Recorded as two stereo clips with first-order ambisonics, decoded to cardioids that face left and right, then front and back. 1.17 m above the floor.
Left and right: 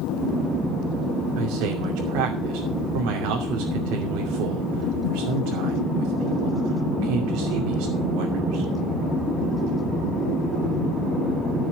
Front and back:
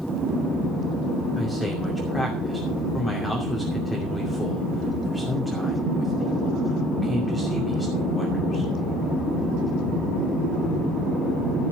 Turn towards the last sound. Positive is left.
turn(degrees=-80)